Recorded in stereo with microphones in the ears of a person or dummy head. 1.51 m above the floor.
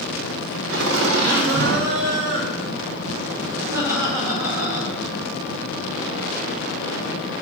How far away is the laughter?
About 1.1 m.